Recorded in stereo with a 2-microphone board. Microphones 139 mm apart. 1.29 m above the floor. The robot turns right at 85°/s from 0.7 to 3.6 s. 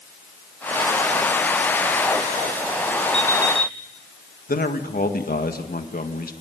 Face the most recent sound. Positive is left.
turn(degrees=80)